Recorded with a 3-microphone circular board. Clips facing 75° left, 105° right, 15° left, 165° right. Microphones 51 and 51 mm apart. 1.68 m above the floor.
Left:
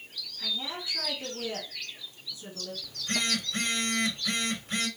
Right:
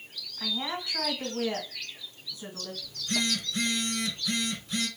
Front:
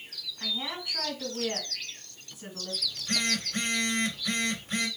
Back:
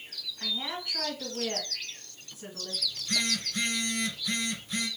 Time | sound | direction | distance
0.4 | a woman speaking | 75° right | 2.5 m
2.8 | a phone buzzing | 45° left | 1.8 m